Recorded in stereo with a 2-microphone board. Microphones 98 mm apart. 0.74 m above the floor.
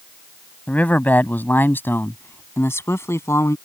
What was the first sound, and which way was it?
A man speaking, 15° left (ahead or behind).